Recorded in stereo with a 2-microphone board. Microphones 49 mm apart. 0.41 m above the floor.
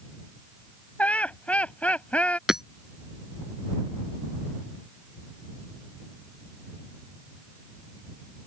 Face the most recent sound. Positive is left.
turn(degrees=-10)  # may be behind; listen again after turning